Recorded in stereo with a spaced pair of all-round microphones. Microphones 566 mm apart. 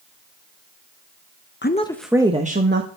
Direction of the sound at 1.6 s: 20° left (ahead or behind).